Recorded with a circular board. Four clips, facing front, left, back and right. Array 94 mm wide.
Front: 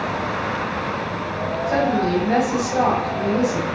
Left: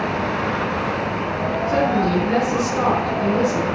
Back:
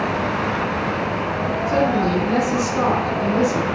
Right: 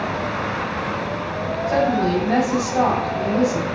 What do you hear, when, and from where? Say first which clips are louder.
1.7 s a woman speaking: right 1 dB, even; 40° right, 3.5 m